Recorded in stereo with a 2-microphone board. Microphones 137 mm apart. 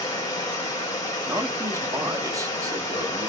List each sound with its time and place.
0.0 s running water: 30° left (ahead or behind), 1.5 m
1.3 s a man speaking: 25° right (ahead or behind), 0.8 m